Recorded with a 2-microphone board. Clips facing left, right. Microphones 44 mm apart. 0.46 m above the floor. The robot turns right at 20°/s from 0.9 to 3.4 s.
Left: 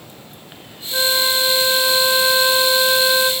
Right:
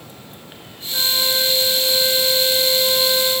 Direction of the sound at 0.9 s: 25° left.